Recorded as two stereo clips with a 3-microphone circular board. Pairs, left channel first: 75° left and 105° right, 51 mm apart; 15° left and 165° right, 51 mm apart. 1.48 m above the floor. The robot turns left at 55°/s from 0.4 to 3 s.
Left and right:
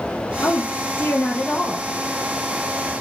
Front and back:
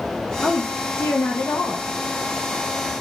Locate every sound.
0.4 s a woman speaking: 75° left, 0.6 m; by 1.9 s 5° right, 0.6 m